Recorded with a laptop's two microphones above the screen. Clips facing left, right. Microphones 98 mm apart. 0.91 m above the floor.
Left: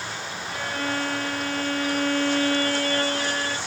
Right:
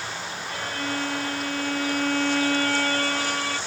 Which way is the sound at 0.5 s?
70° left (ahead or behind).